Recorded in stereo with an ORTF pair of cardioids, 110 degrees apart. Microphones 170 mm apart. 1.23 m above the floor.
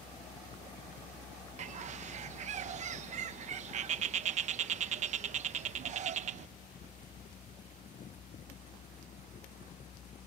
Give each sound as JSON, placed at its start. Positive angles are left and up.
{"t": 0.0, "sound": "a fan", "azimuth_deg": 50}
{"t": 1.6, "sound": "a bird", "azimuth_deg": -45}